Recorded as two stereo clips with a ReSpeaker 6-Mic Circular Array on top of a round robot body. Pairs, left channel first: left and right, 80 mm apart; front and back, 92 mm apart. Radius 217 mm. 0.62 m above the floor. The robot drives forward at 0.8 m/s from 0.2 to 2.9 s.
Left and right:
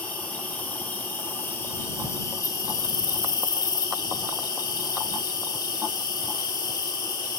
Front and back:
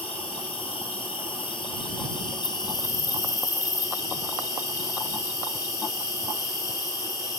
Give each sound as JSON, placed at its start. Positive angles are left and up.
{"t": 0.0, "sound": "an insect", "azimuth_deg": 20, "distance_m": 3.0}